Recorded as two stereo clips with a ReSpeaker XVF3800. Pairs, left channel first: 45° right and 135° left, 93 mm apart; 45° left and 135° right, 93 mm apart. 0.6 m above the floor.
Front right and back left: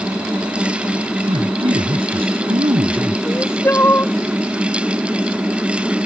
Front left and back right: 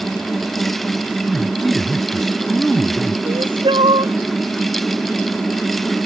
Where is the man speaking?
135° left.